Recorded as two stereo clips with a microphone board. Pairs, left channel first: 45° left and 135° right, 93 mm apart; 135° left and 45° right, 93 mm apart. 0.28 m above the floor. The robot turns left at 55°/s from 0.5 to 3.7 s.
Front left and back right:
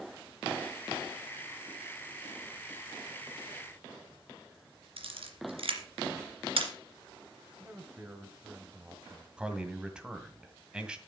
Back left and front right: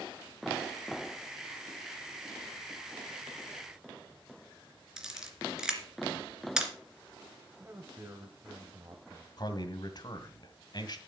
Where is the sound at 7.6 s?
80° right, 1.5 m.